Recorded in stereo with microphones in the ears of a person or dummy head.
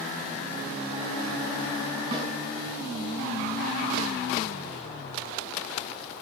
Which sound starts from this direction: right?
A snare drum, at 2.1 s.